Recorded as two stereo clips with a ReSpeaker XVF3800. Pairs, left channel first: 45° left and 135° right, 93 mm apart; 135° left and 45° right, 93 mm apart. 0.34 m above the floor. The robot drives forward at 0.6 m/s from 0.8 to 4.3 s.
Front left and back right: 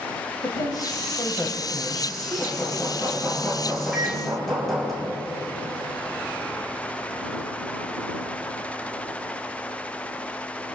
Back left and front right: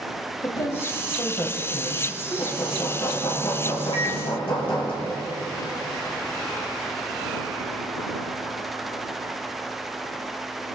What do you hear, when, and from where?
0.4 s a woman speaking: 95° left, 1.4 m; by 2.6 s 135° left, 1.8 m
2.4 s hammering: 115° left, 3.5 m; by 4.9 s 130° left, 4.5 m
3.9 s a microwave: 140° left, 2.5 m; by 4.2 s 145° left, 2.5 m